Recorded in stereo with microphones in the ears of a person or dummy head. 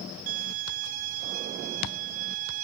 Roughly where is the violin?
Right.